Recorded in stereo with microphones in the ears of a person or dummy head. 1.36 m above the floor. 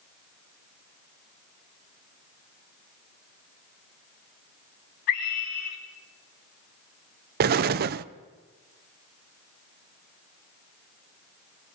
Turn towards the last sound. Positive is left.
turn(degrees=-45)  # may be behind; listen again after turning